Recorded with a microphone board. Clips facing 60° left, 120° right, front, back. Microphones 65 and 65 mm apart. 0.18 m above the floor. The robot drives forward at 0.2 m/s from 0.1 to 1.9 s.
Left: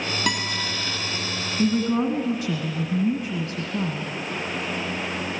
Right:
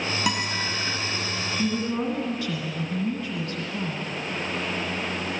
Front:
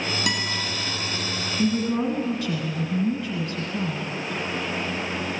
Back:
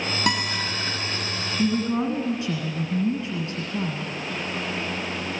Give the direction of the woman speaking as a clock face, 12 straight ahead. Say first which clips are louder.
Left 6 dB, even; 8 o'clock.